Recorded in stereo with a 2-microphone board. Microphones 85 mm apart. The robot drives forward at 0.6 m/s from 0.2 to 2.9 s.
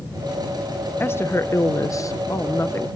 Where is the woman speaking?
25° left (ahead or behind), 0.9 m; by 2.9 s 30° left (ahead or behind), 0.8 m.